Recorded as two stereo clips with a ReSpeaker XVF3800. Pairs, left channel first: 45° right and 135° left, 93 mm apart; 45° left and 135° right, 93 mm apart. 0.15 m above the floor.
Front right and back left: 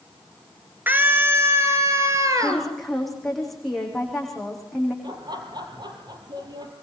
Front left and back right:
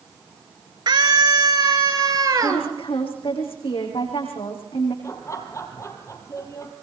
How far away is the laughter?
About 3.5 m.